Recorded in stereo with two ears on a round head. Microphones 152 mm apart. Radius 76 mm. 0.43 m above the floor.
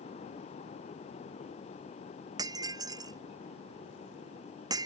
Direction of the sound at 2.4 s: 25° right (ahead or behind).